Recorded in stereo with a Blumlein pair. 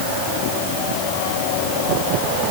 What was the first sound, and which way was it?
Only background noise.